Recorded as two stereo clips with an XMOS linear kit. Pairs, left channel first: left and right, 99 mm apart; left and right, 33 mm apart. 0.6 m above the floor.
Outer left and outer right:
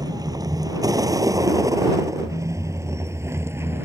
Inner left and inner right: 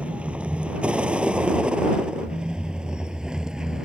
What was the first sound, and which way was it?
A vehicle, 40° right (ahead or behind).